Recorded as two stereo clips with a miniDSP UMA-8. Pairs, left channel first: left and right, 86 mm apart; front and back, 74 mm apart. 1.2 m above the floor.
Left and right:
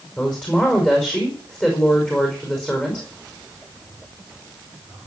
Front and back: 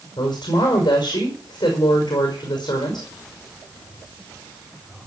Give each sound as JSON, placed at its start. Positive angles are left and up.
{"t": 0.2, "sound": "a woman speaking", "azimuth_deg": 15, "distance_m": 5.5}